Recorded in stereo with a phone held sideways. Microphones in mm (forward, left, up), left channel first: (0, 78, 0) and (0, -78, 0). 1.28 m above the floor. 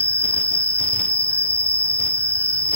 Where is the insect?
50° right (ahead or behind), 1.5 m.